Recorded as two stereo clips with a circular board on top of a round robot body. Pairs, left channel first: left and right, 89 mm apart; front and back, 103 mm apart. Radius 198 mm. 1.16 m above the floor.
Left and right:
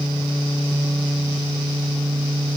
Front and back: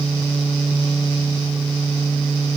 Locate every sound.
Only background noise.